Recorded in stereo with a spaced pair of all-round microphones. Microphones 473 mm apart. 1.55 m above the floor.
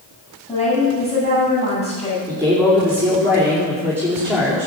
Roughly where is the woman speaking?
Centre.